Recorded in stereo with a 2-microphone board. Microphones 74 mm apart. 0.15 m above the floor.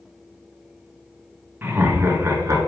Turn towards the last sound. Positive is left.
turn(degrees=-40)  # may be behind; listen again after turning